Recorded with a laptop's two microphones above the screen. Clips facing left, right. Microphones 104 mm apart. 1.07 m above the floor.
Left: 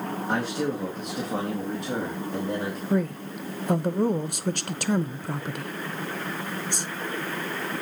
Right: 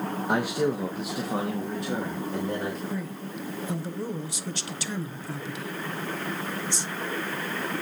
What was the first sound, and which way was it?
A man speaking, 15° right (ahead or behind).